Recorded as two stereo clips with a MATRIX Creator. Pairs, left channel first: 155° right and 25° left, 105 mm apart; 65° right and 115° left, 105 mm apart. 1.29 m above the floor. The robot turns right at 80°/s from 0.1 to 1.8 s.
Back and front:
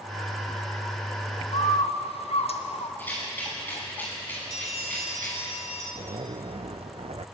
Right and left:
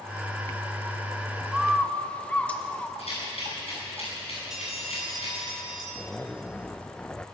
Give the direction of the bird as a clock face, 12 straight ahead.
6 o'clock.